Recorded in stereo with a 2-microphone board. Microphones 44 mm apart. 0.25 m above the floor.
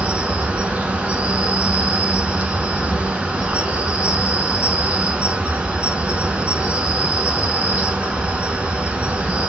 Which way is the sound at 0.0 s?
30° right (ahead or behind).